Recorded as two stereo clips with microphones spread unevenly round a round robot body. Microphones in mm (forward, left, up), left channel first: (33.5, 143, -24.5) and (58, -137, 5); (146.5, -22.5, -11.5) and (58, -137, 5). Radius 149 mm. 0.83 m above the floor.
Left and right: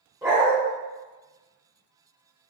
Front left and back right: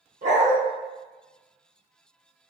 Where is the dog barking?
165° right, 0.9 m.